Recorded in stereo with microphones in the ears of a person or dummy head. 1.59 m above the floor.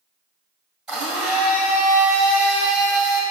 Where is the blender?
5° left (ahead or behind), 2.0 m.